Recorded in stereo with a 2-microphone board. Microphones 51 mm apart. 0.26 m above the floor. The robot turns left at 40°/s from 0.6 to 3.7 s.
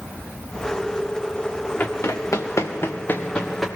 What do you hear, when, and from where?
1.8 s running footsteps: 35° left (ahead or behind), 1.7 m; by 3.7 s centre (ahead or behind), 3 m